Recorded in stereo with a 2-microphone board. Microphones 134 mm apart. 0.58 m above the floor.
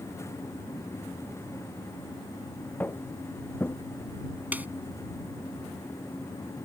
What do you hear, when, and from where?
2.8 s footsteps: 15° left (ahead or behind)
4.5 s a snare drum: 15° right (ahead or behind)